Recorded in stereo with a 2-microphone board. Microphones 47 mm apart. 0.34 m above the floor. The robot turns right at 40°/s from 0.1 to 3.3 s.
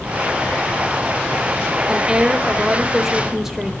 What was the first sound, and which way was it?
A woman speaking, 20° right (ahead or behind).